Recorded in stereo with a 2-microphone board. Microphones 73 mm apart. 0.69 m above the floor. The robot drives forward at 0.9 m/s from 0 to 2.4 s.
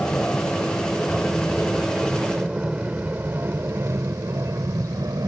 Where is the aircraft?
15° left (ahead or behind); by 5.3 s 55° right (ahead or behind).